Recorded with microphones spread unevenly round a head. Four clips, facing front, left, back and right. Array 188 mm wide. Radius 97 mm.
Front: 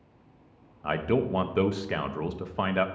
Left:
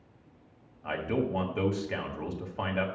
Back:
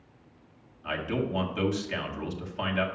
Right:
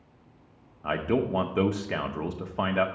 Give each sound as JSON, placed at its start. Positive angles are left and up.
{"t": 0.8, "sound": "a man speaking", "azimuth_deg": -60, "distance_m": 0.9}